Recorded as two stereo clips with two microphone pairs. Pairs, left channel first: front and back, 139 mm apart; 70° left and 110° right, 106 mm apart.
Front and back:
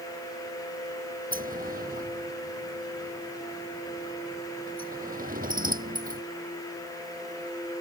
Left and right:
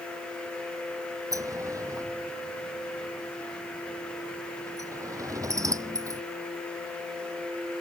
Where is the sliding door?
170° right.